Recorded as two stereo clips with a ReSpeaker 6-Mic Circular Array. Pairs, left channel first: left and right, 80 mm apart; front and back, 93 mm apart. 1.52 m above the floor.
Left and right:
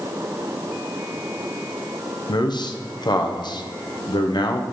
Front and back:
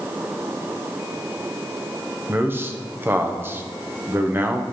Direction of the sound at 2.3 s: 115° left.